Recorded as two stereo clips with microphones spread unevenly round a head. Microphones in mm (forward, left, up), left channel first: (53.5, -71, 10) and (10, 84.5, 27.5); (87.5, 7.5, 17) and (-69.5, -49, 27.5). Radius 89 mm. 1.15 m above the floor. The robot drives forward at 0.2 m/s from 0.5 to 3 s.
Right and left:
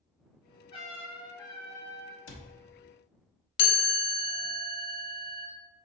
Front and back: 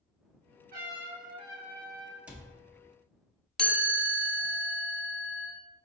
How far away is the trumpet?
About 1.2 m.